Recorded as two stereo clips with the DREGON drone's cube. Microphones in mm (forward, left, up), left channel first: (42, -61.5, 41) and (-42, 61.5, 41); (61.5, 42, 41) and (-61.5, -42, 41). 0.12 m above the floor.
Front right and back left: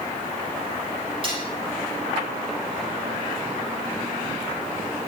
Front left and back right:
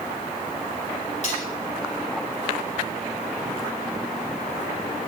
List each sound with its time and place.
1.2 s cutlery clinking: 70° left, 3.5 m